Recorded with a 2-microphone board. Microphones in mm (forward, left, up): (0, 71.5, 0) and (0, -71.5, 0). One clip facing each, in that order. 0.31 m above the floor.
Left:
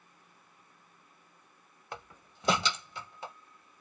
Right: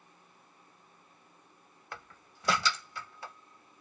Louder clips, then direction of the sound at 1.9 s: Left 3 dB; 20° left (ahead or behind).